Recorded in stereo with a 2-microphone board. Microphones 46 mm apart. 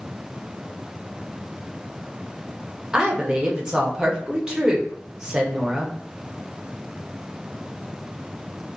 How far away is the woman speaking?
About 0.7 m.